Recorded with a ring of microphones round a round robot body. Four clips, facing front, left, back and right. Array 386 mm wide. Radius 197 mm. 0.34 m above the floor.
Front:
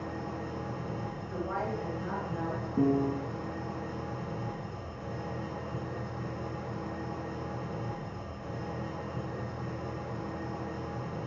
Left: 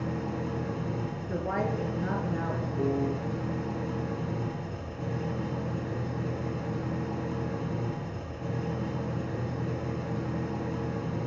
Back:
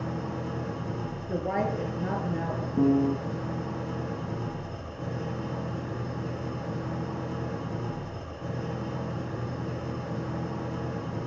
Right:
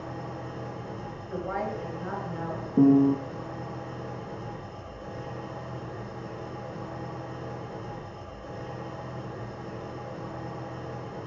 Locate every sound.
0.0 s an engine running: 125° left, 3 m
1.3 s a woman speaking: 145° left, 5.5 m
2.8 s a piano: 100° right, 1.4 m